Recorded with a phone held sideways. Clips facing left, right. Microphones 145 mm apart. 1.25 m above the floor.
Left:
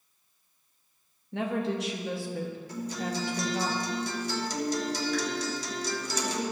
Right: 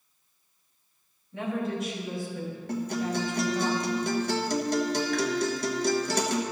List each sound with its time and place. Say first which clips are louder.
1.3 s a woman speaking: left 1 dB; 75° left (ahead or behind), 1.6 m
2.7 s a guitar: right 7 dB; 60° right (ahead or behind), 1.2 m